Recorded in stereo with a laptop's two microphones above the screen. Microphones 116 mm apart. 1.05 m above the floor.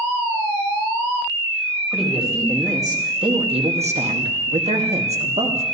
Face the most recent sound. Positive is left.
turn(degrees=-60)  # may be behind; listen again after turning